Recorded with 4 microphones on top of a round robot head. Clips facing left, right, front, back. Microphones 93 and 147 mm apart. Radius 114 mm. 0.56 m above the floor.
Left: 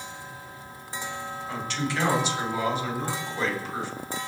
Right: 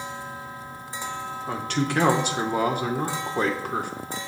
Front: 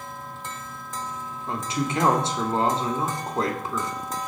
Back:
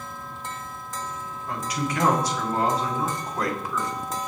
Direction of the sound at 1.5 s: 60° right.